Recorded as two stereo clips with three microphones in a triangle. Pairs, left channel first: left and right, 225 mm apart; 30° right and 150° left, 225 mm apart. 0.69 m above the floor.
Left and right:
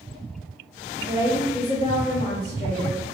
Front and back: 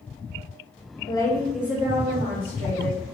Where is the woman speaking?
70° right, 0.6 m; by 3.1 s 95° left, 1.3 m.